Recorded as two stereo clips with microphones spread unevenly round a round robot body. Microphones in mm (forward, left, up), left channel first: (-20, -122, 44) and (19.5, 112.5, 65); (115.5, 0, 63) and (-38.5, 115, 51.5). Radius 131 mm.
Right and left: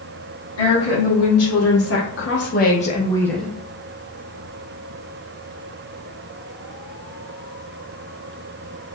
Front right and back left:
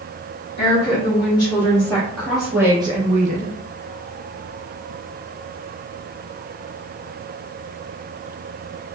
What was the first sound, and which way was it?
A woman speaking, 100° right.